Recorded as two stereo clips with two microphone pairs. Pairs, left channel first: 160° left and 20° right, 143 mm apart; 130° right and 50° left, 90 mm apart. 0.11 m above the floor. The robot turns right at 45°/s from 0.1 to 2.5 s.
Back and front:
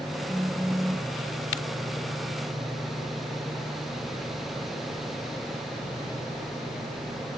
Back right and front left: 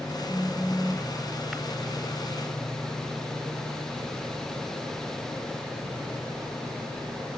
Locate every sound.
0.3 s a phone buzzing: 45° left, 2.5 m; by 1.1 s 80° left, 2.5 m